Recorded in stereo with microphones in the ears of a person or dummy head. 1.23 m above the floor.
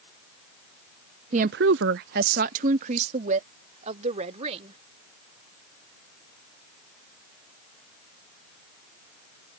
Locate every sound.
1.3 s a woman speaking: 30° right (ahead or behind); by 4.8 s 35° right (ahead or behind)